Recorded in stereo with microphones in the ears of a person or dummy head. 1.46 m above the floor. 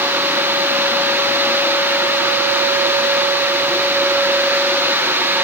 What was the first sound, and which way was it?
Only background noise.